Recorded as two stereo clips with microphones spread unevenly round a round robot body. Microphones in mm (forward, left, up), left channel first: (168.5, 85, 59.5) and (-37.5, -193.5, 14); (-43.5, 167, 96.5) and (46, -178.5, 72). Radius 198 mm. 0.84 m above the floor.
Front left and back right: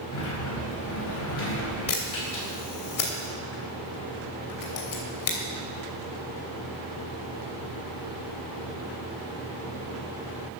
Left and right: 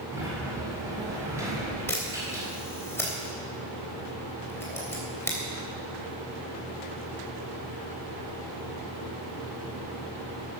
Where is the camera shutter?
20° left, 3 m.